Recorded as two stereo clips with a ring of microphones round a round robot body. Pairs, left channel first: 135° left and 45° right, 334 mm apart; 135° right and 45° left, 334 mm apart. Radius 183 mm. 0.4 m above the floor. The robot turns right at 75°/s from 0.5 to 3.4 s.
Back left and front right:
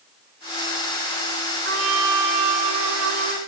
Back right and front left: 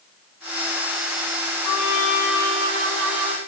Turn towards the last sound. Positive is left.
turn(degrees=20)